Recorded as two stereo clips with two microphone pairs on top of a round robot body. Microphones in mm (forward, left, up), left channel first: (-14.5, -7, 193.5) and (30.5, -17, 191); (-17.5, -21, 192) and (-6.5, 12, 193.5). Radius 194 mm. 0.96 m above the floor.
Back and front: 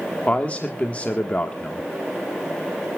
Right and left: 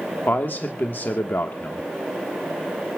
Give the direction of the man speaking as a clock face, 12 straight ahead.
4 o'clock.